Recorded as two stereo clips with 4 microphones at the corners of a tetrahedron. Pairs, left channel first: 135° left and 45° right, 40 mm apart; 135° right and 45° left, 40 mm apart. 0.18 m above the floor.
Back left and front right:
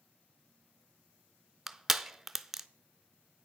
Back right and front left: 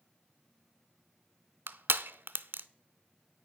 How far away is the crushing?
About 0.5 m.